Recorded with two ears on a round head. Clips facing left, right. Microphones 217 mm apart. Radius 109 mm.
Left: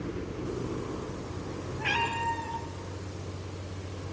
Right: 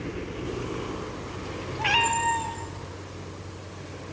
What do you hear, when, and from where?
1.8 s a cat meowing: 70° right (ahead or behind), 2.5 m